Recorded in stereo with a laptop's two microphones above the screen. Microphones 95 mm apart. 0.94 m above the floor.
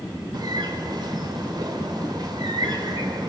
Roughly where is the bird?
Right.